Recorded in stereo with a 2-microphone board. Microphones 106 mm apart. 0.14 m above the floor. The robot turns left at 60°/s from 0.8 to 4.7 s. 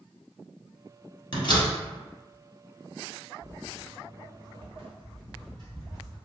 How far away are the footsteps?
About 0.7 m.